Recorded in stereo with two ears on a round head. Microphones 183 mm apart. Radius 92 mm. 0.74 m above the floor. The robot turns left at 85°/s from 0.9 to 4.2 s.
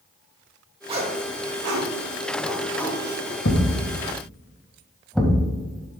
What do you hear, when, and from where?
0.9 s a zipper: 25° right (ahead or behind), 2.0 m; by 3.4 s 55° left (ahead or behind), 2.0 m
3.5 s a thud: 65° left (ahead or behind), 1.7 m; by 5.5 s centre (ahead or behind), 1.7 m